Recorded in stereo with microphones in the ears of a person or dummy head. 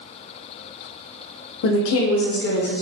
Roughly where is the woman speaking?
Left.